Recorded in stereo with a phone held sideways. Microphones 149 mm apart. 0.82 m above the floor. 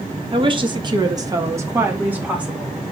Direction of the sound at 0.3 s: 35° right (ahead or behind).